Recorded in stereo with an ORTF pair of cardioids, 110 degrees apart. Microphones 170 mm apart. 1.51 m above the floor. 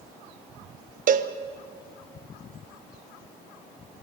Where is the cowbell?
50° right, 1.1 m.